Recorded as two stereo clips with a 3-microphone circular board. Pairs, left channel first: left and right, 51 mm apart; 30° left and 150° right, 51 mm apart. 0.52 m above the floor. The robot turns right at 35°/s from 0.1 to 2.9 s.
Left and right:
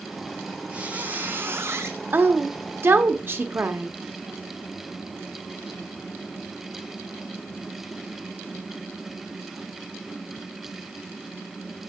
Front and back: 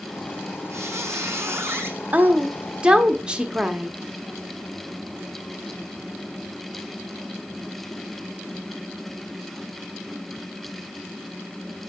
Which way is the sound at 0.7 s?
160° right.